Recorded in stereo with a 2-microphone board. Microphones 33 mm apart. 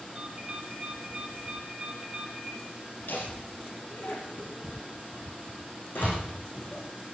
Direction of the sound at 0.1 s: 20° right (ahead or behind).